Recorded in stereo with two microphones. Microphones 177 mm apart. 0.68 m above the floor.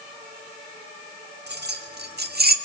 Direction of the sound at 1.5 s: 75° right (ahead or behind).